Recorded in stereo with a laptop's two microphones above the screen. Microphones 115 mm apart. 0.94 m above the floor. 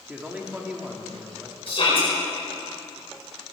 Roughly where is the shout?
Left.